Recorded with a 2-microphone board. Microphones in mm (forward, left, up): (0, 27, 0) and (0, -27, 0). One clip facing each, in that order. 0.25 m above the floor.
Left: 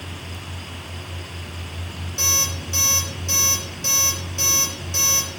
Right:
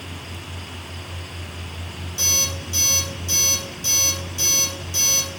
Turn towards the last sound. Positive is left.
turn(degrees=45)  # may be behind; listen again after turning